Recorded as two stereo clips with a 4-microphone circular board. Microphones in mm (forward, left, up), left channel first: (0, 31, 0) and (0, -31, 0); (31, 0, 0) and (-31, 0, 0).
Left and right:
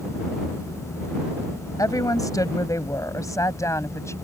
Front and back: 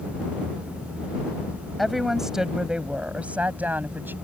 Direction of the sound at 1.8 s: 90° left.